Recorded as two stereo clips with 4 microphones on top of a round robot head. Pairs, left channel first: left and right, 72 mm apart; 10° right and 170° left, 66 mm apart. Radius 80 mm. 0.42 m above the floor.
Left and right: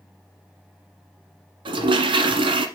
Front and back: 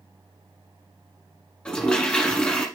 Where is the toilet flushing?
90° right, 1.4 m.